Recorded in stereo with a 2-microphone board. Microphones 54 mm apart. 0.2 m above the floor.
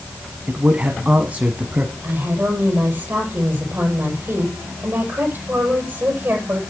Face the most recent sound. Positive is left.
turn(degrees=-35)  # may be behind; listen again after turning